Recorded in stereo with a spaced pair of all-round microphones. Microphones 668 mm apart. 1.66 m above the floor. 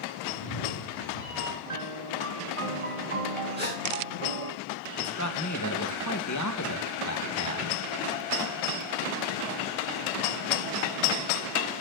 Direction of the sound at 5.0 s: 25° left (ahead or behind).